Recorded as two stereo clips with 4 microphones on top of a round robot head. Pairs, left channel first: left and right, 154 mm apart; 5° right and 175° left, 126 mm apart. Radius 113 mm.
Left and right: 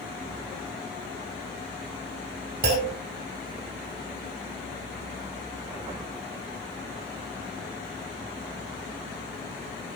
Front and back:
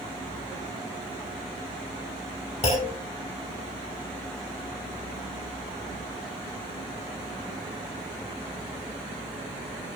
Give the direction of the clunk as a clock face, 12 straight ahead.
2 o'clock.